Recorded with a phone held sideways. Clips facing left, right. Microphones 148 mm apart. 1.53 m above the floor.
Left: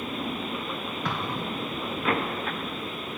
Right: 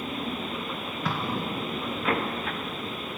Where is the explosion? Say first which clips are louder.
Right 2 dB; 5° right (ahead or behind), 1.4 m.